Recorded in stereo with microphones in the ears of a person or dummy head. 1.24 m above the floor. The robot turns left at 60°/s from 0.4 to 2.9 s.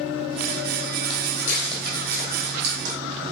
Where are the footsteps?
35° left (ahead or behind), 3 m; by 3.0 s 45° right (ahead or behind), 4 m.